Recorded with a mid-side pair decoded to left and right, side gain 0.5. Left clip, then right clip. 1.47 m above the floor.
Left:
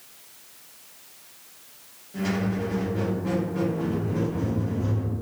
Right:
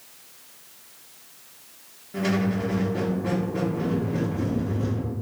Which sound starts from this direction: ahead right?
A squeak, at 2.1 s.